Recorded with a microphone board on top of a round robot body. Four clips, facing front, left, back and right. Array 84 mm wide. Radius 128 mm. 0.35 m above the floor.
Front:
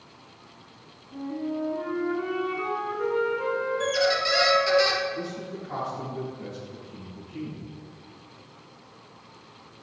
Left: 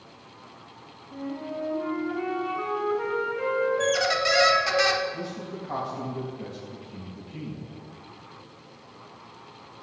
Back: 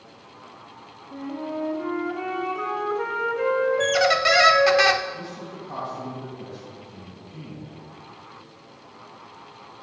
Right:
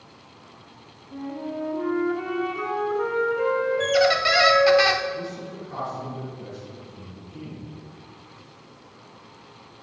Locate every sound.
1.1 s a flute: 175° left, 3 m
3.8 s a squeak: 160° right, 0.6 m
5.1 s a man speaking: 95° left, 4 m